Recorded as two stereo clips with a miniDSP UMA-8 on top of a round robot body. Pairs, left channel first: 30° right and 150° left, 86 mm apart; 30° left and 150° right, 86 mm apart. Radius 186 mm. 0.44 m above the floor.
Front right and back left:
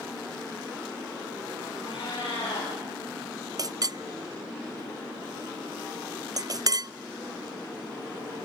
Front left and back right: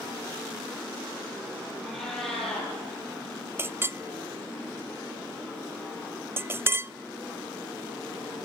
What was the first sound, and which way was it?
A cat meowing, 55° right.